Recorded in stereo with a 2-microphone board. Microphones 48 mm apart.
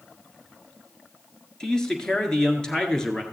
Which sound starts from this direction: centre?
A man speaking, at 1.6 s.